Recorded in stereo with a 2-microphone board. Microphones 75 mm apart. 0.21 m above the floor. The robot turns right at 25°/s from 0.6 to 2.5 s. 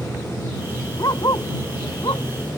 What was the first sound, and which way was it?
A dog barking, 55° left (ahead or behind).